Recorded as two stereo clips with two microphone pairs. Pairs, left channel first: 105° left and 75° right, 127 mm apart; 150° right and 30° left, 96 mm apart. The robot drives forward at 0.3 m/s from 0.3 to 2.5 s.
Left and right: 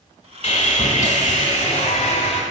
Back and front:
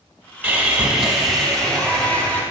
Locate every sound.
0.4 s sawing: 95° left, 0.7 m; by 2.4 s 135° left, 0.9 m